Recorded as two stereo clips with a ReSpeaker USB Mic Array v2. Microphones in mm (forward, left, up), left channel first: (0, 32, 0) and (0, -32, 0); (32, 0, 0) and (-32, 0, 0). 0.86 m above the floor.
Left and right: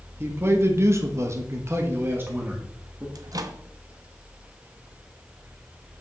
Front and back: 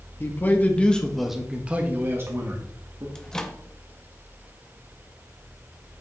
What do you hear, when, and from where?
0.2 s a man speaking: 45° right, 1.3 m; by 3.0 s 155° right, 1.7 m
3.1 s a microwave: 80° right, 0.7 m